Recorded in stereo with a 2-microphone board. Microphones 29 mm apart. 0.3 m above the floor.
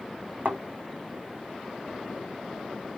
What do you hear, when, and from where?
0.5 s a thud: 80° right, 1.2 m